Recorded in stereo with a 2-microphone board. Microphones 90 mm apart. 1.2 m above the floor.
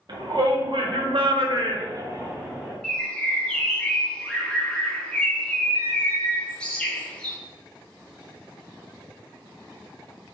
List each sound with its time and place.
0.1 s a shout: 55° right (ahead or behind), 1.0 m; by 2.7 s 15° right (ahead or behind), 0.7 m
2.8 s a bird: 10° left (ahead or behind), 0.6 m